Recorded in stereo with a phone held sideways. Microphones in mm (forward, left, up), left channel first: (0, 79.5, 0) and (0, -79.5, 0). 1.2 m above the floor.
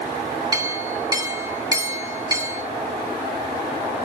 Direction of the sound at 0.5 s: 20° right (ahead or behind).